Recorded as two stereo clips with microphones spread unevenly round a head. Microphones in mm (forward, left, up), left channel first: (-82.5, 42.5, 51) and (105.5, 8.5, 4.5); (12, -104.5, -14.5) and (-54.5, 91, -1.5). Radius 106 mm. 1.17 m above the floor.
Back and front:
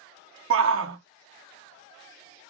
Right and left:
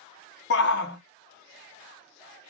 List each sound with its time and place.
0.5 s a shout: 30° right, 0.7 m